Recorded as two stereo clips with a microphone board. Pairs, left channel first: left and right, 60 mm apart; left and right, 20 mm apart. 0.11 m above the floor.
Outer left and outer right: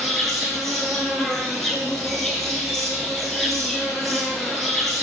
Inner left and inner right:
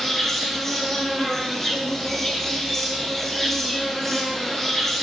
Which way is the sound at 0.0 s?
5° left (ahead or behind).